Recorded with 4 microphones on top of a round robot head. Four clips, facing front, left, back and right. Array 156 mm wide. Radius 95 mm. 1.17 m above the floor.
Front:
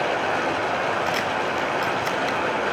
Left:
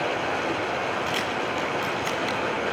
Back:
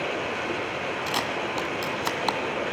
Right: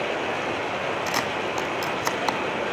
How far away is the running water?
About 6 m.